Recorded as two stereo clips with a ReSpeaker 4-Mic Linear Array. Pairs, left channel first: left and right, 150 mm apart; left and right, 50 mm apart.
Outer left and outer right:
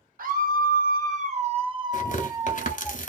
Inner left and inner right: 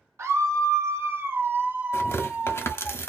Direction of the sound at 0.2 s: 75° right (ahead or behind).